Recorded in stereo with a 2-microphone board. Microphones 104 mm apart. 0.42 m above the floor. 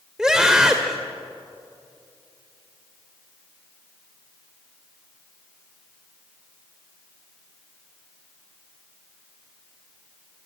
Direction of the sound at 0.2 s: 5° right (ahead or behind).